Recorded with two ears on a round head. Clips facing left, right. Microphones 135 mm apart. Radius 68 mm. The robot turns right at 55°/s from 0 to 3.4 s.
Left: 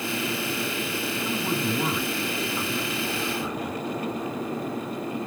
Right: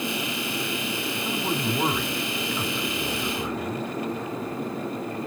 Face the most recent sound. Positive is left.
turn(degrees=-45)